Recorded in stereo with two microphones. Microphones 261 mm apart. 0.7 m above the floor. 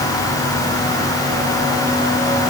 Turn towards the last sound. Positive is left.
No sound to turn to.